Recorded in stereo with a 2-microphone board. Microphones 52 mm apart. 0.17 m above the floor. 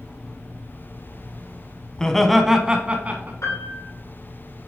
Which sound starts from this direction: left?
A piano, at 3.4 s.